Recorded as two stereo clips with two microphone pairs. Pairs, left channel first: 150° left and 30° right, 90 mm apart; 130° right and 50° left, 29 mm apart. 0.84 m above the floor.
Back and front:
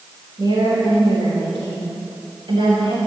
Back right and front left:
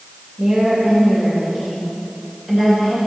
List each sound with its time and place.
0.4 s a woman speaking: 5° left, 4.5 m; by 3.0 s 30° right, 4.5 m